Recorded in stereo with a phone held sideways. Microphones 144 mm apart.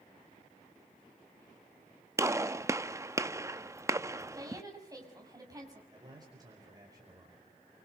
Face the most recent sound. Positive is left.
turn(degrees=-25)  # may be behind; listen again after turning